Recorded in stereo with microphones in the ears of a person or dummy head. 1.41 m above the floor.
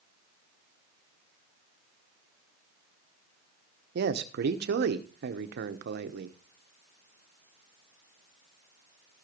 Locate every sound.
4.0 s a man speaking: 60° right (ahead or behind), 1.0 m